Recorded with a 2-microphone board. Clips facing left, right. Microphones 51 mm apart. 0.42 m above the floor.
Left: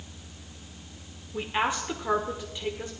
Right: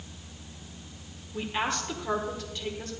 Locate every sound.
1.3 s a woman speaking: 15° left (ahead or behind), 1.3 m